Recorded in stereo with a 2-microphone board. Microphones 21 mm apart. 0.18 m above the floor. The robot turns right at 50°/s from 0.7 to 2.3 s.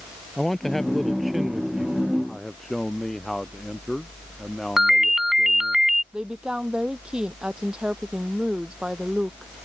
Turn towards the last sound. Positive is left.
turn(degrees=-55)  # may be behind; listen again after turning